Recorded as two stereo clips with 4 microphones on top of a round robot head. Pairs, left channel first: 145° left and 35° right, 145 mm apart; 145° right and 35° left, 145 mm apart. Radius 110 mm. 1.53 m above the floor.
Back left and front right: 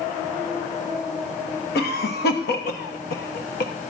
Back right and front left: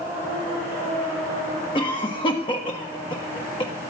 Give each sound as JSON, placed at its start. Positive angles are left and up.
{"t": 1.8, "sound": "a cough", "azimuth_deg": 160, "distance_m": 1.4}